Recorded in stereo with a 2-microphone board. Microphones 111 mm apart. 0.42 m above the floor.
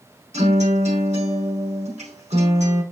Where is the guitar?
75° right (ahead or behind), 5 m.